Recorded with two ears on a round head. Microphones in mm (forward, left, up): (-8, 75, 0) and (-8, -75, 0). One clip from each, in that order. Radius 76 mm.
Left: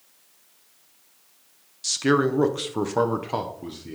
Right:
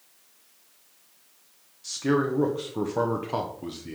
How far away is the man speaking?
About 0.9 m.